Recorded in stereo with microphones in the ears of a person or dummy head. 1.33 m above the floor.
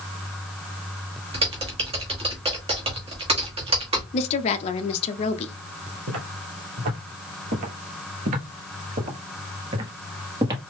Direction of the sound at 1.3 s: 25° right (ahead or behind).